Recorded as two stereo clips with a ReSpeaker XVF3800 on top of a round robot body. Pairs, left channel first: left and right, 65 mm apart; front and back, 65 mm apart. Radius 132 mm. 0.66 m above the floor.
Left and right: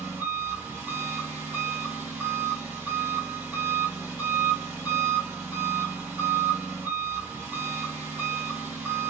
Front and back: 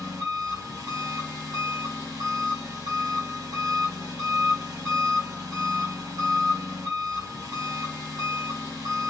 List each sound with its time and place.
0.0 s an engine running: 155° right, 2.5 m